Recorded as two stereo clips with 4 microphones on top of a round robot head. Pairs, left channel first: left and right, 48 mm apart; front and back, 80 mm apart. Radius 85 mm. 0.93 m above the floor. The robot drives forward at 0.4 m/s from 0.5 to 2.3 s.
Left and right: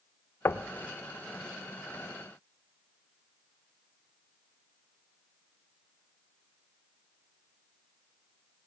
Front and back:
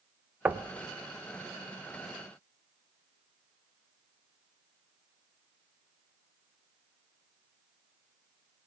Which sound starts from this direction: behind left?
Knocking, at 0.5 s.